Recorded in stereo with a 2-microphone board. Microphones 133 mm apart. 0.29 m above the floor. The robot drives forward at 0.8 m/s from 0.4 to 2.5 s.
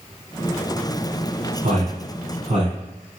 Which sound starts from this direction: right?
A man speaking, at 1.6 s.